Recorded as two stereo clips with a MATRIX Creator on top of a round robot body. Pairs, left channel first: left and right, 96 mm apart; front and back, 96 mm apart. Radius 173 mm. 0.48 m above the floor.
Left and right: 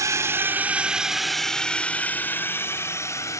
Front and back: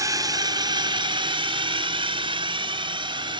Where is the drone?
140° right; by 3.4 s 145° left.